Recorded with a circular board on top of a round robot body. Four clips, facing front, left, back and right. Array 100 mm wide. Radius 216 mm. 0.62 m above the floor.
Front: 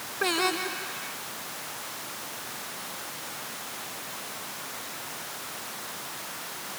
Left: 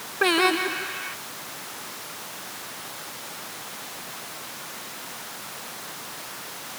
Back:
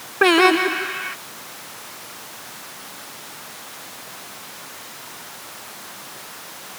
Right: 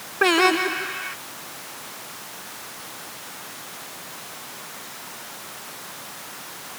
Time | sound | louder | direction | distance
0.2 | singing | right 3 dB, back 13 dB | 165° right | ?